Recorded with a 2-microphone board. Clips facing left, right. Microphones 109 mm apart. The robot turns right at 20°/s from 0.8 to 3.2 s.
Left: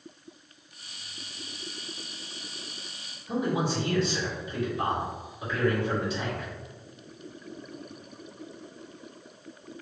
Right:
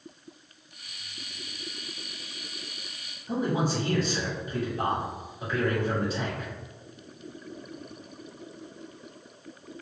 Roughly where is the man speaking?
Right.